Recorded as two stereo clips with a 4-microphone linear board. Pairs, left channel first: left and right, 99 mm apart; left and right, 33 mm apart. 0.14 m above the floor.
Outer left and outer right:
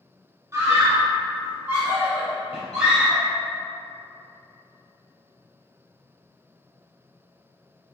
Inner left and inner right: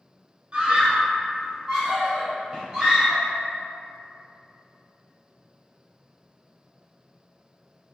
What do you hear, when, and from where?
0.5 s a scream: 25° right (ahead or behind), 1.9 m; by 3.2 s 5° right (ahead or behind), 2.5 m